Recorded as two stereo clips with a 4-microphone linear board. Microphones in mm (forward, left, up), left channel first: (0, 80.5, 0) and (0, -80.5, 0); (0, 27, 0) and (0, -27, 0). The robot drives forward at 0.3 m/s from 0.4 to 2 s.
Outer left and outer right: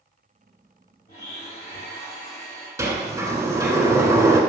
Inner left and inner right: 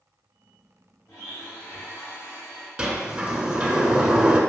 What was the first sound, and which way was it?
A blender, 80° left.